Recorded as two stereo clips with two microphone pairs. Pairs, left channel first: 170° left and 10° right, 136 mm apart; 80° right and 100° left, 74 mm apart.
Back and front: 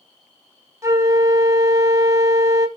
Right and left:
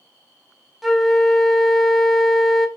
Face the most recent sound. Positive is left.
turn(degrees=15)